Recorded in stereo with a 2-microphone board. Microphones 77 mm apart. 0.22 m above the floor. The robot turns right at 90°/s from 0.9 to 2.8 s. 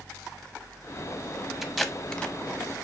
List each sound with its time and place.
1.6 s tape being pulled: 5° right (ahead or behind), 0.6 m; by 2.4 s 15° left (ahead or behind), 0.6 m